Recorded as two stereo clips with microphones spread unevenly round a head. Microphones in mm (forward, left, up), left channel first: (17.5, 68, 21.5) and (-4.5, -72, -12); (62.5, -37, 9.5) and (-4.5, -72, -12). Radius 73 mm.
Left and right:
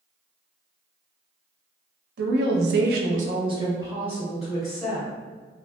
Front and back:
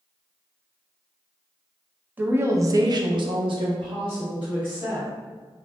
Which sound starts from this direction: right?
A woman speaking, at 2.2 s.